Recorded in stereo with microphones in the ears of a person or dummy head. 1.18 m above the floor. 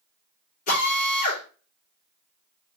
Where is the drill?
50° left (ahead or behind), 3 m.